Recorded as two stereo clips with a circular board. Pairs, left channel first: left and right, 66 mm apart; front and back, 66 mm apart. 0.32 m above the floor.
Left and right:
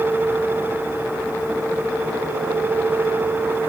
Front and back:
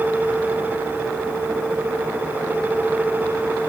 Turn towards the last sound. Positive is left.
No sound to turn to.